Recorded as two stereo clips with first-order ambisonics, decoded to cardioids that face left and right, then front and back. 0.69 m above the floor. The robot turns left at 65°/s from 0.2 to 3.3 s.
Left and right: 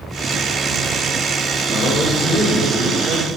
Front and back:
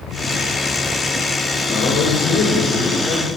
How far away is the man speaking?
About 3 m.